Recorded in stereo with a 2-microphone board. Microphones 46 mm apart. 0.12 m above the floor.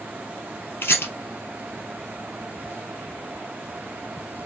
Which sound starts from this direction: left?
A rattle, at 0.8 s.